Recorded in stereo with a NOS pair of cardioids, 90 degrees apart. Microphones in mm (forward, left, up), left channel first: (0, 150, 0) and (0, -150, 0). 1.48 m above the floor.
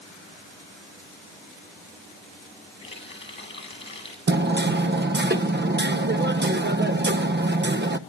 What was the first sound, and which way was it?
A running tap, 20° left.